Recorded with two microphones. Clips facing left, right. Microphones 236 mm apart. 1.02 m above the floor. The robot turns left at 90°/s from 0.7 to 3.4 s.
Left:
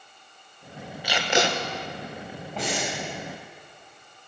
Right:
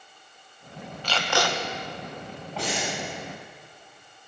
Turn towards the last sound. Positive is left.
turn(degrees=85)